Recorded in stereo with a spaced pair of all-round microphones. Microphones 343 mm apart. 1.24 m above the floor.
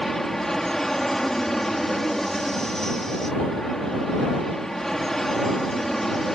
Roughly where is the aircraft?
Centre.